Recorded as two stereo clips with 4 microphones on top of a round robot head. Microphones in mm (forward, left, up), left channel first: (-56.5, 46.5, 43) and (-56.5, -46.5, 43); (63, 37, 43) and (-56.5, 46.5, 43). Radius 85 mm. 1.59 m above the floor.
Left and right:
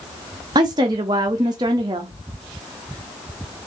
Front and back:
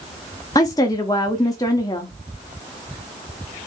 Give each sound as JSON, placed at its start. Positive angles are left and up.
{"t": 0.6, "sound": "a woman speaking", "azimuth_deg": -60, "distance_m": 0.6}